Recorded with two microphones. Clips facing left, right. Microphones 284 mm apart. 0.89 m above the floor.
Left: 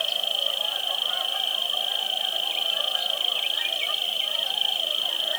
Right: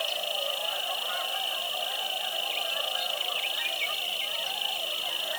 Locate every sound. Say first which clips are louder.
0.0 s an insect: right 1 dB; 15° left (ahead or behind)